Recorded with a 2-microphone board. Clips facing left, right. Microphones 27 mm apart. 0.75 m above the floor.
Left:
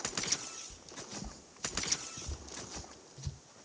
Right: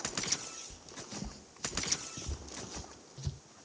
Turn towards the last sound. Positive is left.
turn(degrees=-20)  # may be behind; listen again after turning